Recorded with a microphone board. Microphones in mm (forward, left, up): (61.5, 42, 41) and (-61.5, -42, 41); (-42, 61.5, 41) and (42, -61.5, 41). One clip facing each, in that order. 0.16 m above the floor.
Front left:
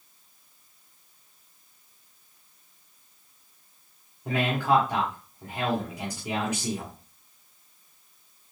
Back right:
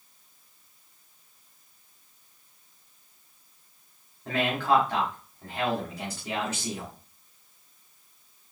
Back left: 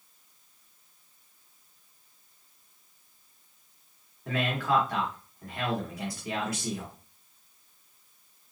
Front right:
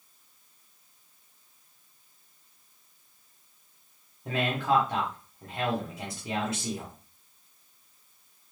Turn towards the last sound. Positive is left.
turn(degrees=-25)